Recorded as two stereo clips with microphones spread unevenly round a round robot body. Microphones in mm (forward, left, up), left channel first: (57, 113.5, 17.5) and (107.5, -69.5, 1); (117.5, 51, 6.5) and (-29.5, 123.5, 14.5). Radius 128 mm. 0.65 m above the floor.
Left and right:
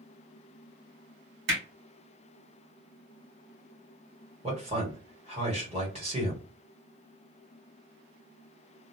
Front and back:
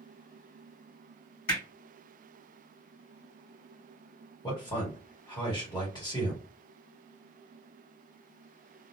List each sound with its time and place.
1.5 s hammering: 85° right, 1.8 m
4.4 s a man speaking: 70° right, 1.4 m